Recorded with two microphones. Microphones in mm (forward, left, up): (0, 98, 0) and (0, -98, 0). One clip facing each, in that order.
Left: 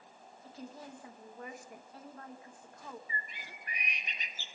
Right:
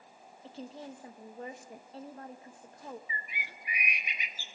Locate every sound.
0.4 s a woman speaking: 30° right (ahead or behind), 0.9 m
3.1 s a bird: 10° right (ahead or behind), 0.5 m